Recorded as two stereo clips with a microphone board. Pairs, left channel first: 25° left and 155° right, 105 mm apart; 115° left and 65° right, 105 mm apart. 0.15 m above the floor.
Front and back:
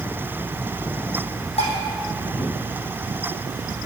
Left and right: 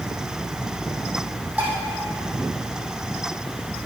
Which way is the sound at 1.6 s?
10° left.